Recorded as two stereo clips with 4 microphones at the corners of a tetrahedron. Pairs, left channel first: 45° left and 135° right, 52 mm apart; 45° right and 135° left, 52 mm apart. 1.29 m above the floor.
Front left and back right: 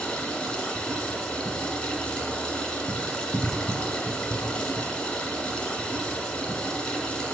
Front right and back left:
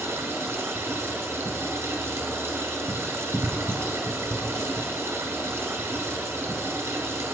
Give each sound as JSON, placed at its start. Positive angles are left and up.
{"t": 0.0, "sound": "running water", "azimuth_deg": 115, "distance_m": 2.0}